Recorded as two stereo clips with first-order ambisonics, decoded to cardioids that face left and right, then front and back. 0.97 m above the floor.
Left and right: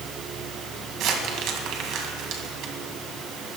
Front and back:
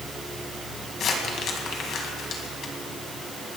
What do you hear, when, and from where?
1.0 s crumpling: 55° right, 2 m